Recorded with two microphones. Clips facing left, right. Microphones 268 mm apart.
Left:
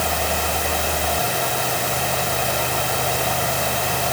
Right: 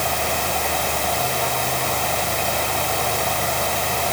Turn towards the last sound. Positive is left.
No sound to turn to.